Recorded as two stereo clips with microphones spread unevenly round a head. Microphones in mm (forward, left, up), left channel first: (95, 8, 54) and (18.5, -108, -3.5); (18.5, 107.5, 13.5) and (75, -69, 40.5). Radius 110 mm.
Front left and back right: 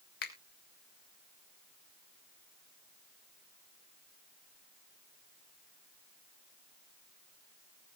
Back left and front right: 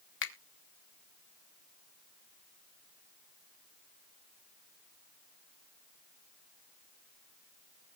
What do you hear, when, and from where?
0.2 s a finger snap: 90° left, 1.6 m